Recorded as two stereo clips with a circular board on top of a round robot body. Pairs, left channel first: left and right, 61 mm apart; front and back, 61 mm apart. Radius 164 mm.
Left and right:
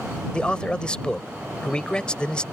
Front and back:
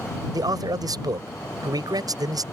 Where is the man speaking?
165° left.